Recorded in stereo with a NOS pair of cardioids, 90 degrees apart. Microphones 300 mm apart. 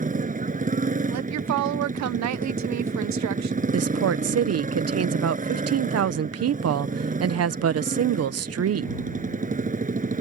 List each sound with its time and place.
0.0 s a motorcycle: 25° right
1.1 s a woman speaking: 70° right
3.7 s a woman speaking: 55° right